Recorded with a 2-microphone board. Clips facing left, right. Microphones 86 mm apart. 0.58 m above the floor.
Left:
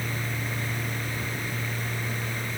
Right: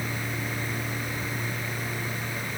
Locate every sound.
Only background noise.